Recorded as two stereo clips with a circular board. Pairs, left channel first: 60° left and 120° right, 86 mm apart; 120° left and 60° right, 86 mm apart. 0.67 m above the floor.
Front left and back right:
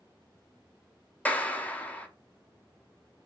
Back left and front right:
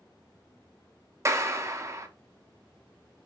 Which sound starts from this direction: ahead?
A clap, at 1.2 s.